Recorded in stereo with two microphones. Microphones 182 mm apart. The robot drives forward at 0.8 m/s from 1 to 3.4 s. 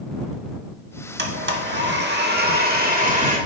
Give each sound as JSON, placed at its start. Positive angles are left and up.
{"t": 1.2, "sound": "a blender", "side_deg": -80, "distance_m": 1.4}